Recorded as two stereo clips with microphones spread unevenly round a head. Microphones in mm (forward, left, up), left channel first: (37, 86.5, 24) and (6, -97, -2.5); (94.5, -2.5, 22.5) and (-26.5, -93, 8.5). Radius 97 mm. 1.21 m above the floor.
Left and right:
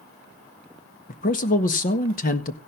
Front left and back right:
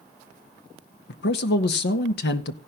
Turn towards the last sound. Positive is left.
turn(degrees=30)